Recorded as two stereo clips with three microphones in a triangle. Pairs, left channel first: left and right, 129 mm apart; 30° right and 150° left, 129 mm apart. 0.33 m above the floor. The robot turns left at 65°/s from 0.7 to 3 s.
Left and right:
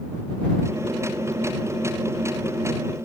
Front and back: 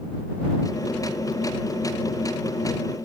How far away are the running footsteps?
No running footsteps in this recording.